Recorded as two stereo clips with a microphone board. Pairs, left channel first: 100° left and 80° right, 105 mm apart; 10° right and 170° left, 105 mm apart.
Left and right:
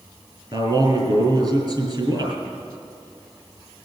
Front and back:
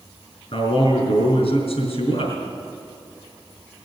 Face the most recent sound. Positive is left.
turn(degrees=-35)